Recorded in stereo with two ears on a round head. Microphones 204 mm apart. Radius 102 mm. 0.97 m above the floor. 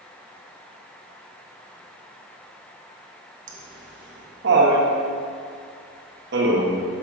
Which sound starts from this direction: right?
Laughter, at 3.5 s.